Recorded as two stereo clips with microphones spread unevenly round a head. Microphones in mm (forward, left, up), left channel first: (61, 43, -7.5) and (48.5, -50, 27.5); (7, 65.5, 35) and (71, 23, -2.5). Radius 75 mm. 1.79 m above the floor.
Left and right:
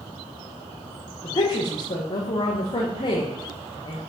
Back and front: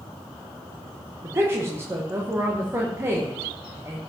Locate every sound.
1.2 s a woman speaking: 35° left, 1.6 m